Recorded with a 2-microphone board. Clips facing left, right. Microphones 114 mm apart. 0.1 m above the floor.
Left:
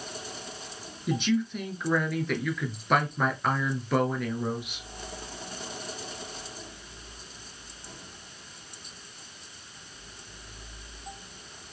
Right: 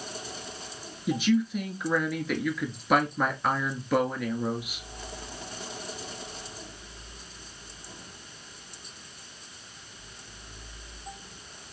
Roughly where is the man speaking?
Centre.